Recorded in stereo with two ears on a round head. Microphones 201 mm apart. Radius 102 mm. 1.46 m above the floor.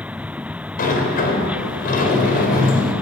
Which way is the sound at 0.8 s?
40° left (ahead or behind).